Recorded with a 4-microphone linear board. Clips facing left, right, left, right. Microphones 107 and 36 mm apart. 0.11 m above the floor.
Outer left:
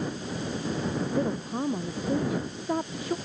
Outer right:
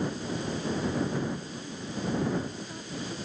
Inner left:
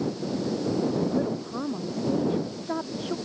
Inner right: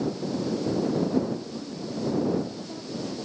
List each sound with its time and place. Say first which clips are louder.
1.1 s a woman speaking: outer left 5 dB, even; 85° left